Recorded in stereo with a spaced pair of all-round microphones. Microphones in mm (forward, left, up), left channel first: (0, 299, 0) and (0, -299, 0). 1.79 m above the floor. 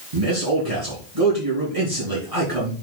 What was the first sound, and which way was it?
A man speaking, 75° right (ahead or behind).